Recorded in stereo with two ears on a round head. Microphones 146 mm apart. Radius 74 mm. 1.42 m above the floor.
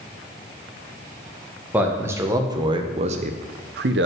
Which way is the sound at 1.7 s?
10° right (ahead or behind).